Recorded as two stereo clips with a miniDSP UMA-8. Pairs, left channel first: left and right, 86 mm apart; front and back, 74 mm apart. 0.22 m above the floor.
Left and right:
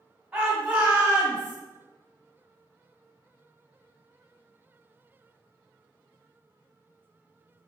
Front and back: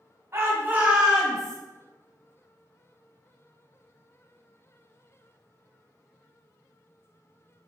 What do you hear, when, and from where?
0.3 s a shout: 165° right, 1.5 m; by 1.6 s 60° right, 1.4 m